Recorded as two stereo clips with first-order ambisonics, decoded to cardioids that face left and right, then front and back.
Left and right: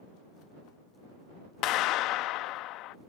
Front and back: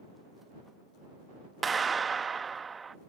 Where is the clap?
110° left.